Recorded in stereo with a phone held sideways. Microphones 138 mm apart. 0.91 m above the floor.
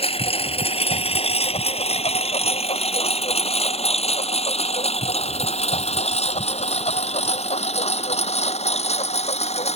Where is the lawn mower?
45° left (ahead or behind); by 9.8 s 50° left (ahead or behind).